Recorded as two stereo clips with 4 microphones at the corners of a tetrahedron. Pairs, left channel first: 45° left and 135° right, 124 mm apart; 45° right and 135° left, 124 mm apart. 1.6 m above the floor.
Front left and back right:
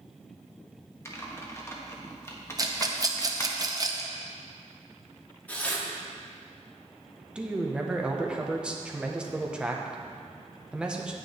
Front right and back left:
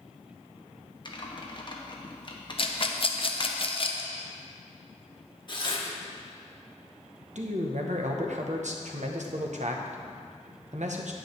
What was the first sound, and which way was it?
Typing on a keyboard, 15° right.